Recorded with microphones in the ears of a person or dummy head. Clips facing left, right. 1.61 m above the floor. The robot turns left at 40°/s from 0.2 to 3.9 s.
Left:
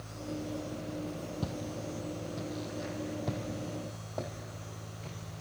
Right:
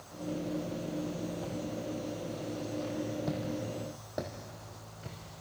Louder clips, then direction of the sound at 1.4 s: Right 1 dB; 50° left (ahead or behind).